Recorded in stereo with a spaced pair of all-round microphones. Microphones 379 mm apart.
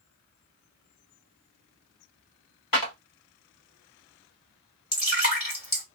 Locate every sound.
2.7 s a clap: 60° left (ahead or behind), 1.3 m
4.9 s dripping: 55° left (ahead or behind), 1.9 m